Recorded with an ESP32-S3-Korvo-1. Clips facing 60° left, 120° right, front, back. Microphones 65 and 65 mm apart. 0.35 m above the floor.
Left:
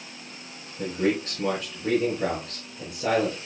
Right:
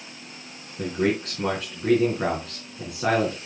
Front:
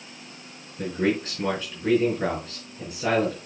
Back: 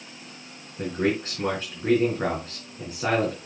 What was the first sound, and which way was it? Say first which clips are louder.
A man speaking: right 1 dB, even; 125° right.